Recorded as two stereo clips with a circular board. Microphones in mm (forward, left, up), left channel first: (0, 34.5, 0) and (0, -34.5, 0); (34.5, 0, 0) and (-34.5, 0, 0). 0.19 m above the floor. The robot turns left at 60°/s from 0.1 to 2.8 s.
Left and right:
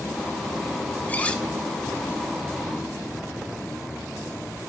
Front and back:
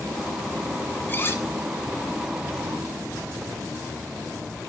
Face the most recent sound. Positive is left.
turn(degrees=-65)